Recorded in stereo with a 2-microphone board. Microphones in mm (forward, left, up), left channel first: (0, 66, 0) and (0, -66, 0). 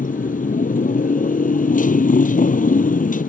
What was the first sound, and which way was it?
A motorcycle, 90° left.